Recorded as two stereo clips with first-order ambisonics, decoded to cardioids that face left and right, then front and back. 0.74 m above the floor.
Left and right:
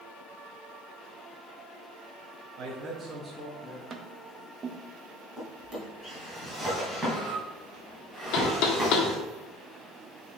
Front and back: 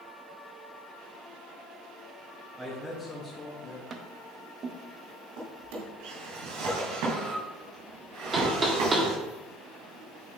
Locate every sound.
2.6 s a man speaking: 110° right, 1.2 m; by 3.8 s 30° left, 1.3 m
3.9 s tapping: 140° right, 0.7 m
5.4 s a drawer: 175° right, 3 m
8.3 s knocking: 110° left, 1.4 m